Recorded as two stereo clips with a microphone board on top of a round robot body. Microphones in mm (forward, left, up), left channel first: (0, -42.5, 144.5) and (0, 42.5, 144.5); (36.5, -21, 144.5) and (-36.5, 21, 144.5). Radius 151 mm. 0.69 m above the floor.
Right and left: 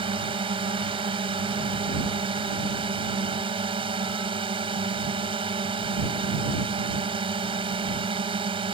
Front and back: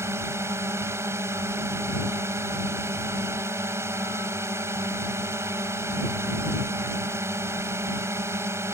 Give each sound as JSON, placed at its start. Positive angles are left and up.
{"t": 0.0, "sound": "a drone", "azimuth_deg": 90}